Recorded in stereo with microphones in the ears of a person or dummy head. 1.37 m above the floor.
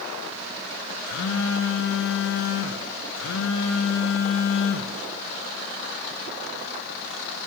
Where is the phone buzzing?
75° left (ahead or behind), 0.8 m.